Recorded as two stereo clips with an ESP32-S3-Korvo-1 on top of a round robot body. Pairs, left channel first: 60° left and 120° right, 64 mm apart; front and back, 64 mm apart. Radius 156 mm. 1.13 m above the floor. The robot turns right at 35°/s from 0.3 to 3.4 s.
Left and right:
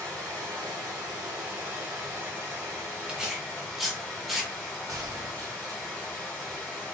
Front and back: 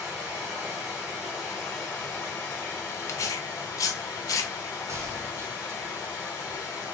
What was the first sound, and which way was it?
Running water, 135° right.